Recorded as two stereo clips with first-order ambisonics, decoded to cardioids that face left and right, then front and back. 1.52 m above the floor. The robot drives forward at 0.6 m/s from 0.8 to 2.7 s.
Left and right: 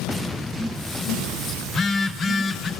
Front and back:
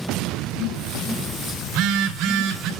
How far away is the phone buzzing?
About 2.5 m.